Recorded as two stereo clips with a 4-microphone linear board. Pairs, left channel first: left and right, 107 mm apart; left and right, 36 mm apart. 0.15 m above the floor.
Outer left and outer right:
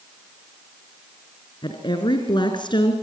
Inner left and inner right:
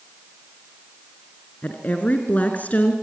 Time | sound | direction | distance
1.6 | a woman speaking | 50° left (ahead or behind) | 2 m